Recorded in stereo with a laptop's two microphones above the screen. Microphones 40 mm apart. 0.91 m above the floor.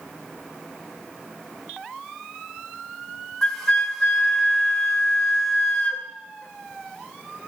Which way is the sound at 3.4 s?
10° left (ahead or behind).